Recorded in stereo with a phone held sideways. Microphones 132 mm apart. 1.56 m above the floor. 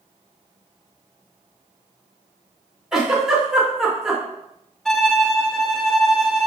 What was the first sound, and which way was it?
A giggle, 5° right (ahead or behind).